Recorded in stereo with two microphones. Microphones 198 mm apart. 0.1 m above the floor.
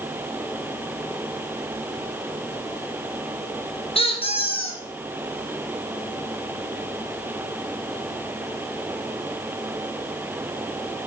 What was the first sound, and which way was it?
A squeak, 30° left (ahead or behind).